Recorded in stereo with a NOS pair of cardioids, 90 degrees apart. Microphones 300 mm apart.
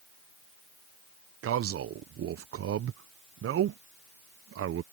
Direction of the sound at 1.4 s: 45° right.